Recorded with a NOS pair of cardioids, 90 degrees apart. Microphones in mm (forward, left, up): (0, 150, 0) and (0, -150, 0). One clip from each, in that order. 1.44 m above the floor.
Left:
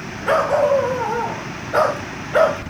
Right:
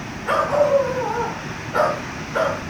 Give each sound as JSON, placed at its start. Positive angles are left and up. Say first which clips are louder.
{"t": 0.3, "sound": "a dog barking", "louder": "left 1 dB", "azimuth_deg": 45, "distance_m": 4.0}